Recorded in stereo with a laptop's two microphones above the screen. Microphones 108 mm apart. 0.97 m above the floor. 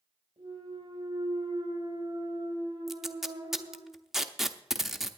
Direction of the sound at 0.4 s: 60° right (ahead or behind).